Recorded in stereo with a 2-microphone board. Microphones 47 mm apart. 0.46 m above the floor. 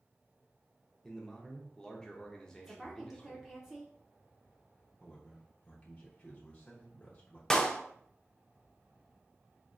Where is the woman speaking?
10° right (ahead or behind), 0.7 m.